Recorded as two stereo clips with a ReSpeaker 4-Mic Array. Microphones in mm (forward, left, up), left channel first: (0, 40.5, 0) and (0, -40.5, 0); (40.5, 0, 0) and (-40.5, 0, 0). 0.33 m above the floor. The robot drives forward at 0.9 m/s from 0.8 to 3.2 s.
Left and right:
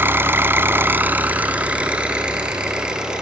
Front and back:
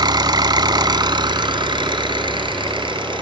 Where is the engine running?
155° right, 1.0 m; by 3.2 s 170° right, 3 m.